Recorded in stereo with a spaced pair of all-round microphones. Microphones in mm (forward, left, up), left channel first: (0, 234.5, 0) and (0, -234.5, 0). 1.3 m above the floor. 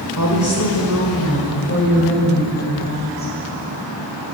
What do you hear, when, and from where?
0.2 s a woman speaking: 40° left (ahead or behind), 6 m; by 3.3 s 20° left (ahead or behind), 8.5 m